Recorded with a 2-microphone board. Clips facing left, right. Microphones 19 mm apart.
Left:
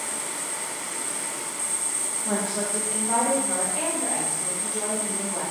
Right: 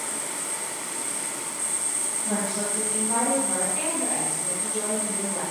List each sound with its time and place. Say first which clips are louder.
2.2 s a woman speaking: left 1 dB; 60° left (ahead or behind), 1.2 m; by 5.4 s 50° left (ahead or behind), 6 m